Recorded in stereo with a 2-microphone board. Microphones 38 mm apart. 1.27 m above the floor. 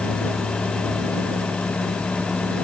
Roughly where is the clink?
I don't hear a clink.